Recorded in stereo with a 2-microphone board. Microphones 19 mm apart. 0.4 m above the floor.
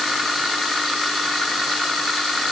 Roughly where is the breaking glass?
No breaking glass in this recording.